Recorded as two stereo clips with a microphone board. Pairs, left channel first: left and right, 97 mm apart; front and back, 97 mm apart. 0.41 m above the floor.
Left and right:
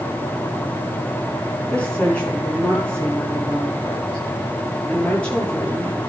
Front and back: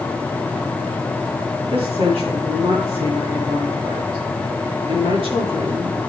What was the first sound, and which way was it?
A woman speaking, 170° left.